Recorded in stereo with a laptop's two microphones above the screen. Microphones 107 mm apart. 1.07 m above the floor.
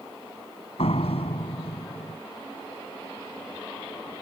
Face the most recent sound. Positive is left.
turn(degrees=75)  # may be behind; listen again after turning